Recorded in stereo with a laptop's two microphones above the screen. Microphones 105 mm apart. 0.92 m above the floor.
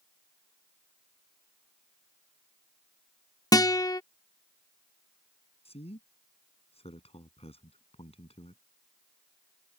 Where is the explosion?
No explosion in this recording.